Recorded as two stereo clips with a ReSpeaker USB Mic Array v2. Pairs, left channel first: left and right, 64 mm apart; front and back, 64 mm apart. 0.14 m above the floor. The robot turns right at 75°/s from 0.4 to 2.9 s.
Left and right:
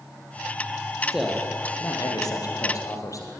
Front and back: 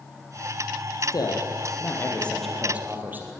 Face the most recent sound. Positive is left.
turn(degrees=120)